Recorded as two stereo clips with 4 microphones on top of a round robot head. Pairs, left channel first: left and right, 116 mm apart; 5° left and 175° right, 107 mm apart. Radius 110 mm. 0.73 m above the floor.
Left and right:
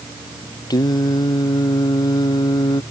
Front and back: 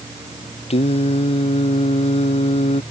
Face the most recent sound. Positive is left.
turn(degrees=35)